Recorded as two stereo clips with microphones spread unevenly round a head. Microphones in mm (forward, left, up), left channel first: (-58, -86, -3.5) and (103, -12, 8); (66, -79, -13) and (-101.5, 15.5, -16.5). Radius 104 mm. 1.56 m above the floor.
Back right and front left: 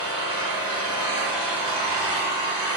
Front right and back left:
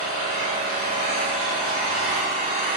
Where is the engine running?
90° left, 1.9 m.